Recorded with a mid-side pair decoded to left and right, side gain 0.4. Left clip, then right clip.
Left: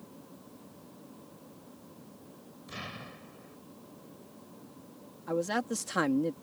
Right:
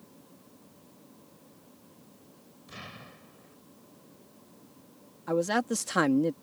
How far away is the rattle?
I don't hear a rattle.